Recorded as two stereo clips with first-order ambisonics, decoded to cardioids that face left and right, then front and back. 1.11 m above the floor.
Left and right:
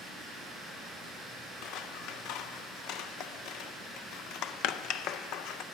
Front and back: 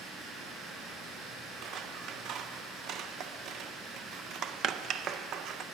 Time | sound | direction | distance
0.0 | running water | 175° left | 5.5 m
1.6 | scissors | 130° left | 0.5 m